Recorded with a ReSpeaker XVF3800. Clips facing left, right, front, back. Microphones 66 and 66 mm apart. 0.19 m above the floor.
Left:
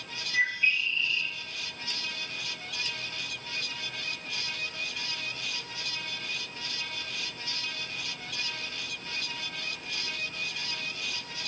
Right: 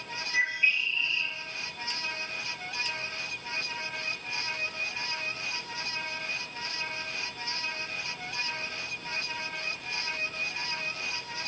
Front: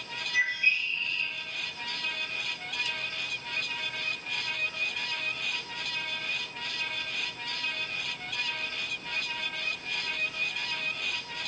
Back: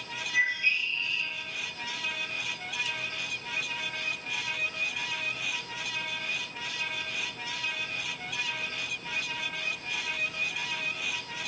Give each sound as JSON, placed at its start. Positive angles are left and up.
{"t": 0.3, "sound": "a bird", "azimuth_deg": -15, "distance_m": 2.0}